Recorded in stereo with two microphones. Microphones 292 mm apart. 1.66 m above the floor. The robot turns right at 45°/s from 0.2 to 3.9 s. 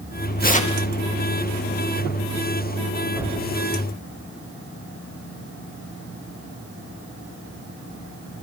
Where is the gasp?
No gasp in this recording.